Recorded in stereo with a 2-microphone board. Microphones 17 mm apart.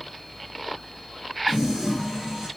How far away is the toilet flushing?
About 1.8 m.